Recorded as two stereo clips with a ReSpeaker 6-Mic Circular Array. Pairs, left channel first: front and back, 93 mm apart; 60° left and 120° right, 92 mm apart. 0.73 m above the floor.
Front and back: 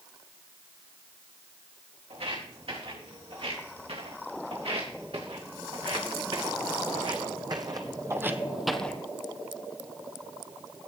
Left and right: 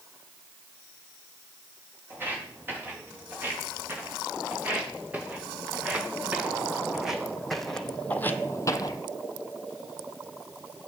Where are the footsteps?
170° left, 6 m; by 9.0 s 60° left, 0.9 m.